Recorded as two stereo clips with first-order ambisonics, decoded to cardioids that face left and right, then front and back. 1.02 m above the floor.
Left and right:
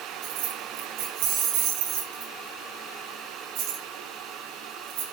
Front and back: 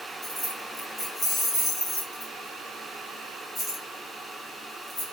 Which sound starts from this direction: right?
Keys jangling, at 0.2 s.